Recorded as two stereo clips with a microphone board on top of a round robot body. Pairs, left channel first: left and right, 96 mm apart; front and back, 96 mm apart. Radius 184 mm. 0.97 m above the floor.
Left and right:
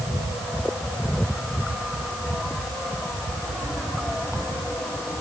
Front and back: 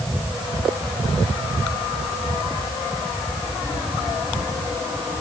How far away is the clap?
No clap in this recording.